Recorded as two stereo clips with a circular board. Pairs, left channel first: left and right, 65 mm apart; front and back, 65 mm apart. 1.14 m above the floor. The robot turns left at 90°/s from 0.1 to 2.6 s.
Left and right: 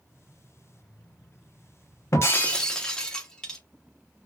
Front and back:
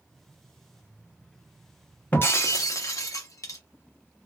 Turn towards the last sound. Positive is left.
turn(degrees=10)